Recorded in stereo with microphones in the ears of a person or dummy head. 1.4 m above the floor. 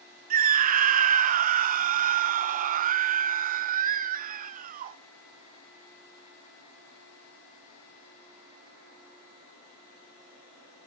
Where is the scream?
45° right (ahead or behind), 0.8 m.